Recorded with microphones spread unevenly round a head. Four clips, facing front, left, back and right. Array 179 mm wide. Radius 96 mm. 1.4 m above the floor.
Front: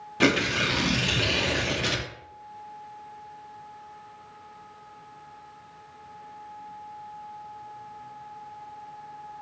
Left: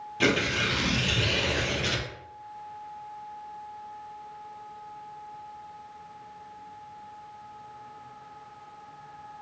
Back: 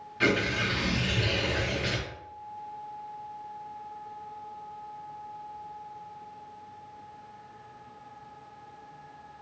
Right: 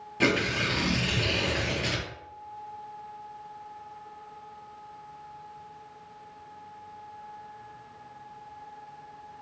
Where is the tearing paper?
10° right, 0.6 m.